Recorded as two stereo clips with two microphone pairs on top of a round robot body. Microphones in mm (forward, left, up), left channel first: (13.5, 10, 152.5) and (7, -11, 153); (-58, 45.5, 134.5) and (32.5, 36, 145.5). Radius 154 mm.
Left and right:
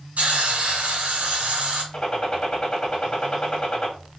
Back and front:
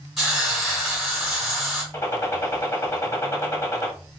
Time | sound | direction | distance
0.2 | a hiss | 100° right | 1.9 m
1.9 | a gunshot | 120° left | 1.8 m